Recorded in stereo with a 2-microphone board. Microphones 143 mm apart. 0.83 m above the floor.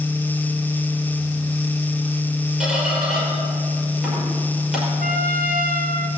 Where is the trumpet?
85° right, 1.3 m.